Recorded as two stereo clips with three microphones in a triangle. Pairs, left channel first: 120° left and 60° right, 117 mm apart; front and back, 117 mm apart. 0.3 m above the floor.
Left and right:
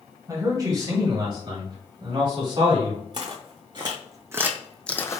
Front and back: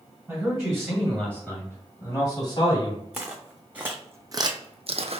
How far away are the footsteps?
About 1.4 m.